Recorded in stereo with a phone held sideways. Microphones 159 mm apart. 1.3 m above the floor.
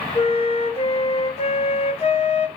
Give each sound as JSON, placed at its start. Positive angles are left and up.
{"t": 0.1, "sound": "a flute", "side_deg": 35, "distance_m": 0.7}